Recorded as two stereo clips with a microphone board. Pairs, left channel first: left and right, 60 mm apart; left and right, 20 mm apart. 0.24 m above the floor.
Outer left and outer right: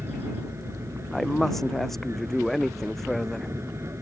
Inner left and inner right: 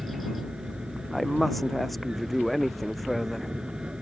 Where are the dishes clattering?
I don't hear dishes clattering.